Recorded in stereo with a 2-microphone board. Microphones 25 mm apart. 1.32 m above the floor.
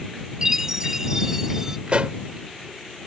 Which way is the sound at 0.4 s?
20° right (ahead or behind).